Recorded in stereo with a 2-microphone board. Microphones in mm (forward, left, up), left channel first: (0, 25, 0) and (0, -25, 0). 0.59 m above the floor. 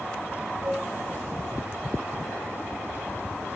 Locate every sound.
0.6 s a cowbell: 50° right (ahead or behind), 4 m